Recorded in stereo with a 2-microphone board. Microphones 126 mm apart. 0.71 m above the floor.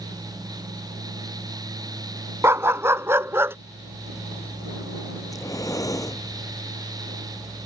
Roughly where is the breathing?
Left.